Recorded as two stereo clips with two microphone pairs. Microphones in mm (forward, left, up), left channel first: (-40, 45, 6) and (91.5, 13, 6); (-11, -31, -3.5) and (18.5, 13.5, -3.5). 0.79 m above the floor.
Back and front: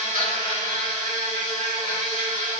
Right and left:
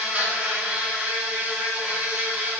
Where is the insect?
15° right, 3.5 m.